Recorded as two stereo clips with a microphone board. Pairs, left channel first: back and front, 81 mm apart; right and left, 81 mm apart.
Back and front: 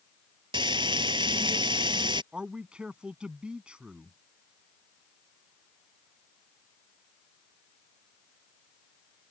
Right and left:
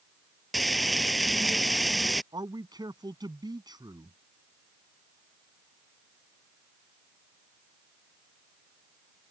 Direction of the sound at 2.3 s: 75° left.